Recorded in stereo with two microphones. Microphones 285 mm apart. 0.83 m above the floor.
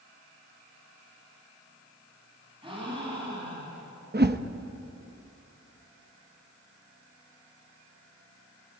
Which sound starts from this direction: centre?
A gasp, at 2.6 s.